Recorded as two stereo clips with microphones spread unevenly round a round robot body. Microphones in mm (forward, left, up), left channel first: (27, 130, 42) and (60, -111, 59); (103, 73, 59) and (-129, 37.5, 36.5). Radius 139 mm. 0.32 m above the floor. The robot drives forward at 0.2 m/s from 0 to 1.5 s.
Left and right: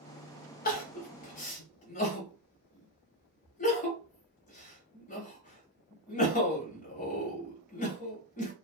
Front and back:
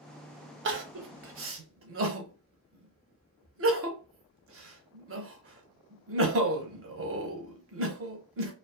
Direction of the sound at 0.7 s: 150° left.